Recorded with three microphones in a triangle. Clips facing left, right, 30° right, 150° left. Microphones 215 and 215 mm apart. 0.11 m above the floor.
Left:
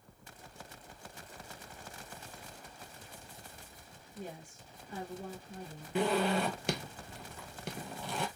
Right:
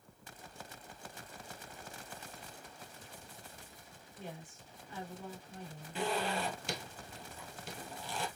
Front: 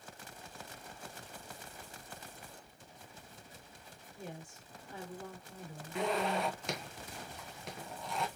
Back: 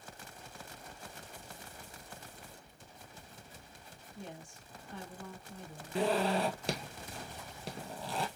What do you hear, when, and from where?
4.2 s a woman speaking: 55° left, 2 m
6.0 s a zipper: 100° left, 0.8 m